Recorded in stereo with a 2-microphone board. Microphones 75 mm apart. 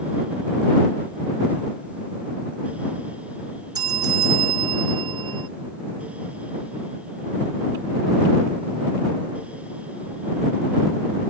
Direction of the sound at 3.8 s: 55° right (ahead or behind).